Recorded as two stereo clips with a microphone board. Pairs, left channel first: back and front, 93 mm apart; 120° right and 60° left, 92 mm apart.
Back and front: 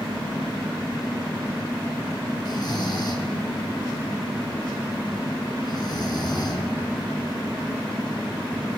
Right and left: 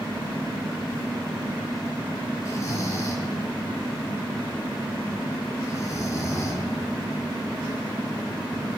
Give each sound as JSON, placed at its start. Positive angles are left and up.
{"t": 2.5, "sound": "snoring", "azimuth_deg": -165, "distance_m": 2.5}